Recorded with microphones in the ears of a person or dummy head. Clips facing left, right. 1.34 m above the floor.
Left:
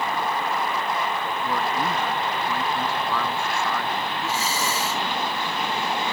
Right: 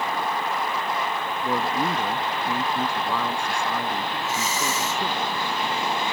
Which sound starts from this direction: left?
Breathing, at 4.2 s.